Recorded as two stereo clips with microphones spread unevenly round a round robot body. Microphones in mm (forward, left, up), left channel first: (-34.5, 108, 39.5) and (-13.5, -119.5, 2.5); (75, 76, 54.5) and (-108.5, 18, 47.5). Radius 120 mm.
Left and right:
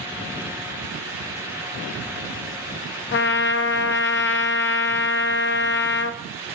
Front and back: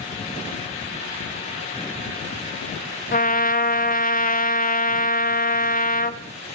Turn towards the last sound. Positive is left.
turn(degrees=55)